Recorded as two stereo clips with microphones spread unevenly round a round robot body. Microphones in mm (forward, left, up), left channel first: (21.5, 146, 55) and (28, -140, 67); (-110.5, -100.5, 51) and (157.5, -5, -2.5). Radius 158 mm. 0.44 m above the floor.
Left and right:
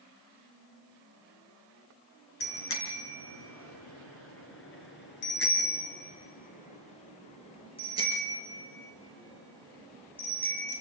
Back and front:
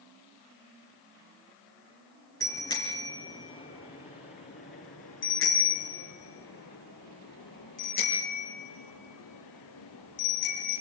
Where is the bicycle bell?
120° left, 4.5 m; by 10.8 s 175° left, 8 m.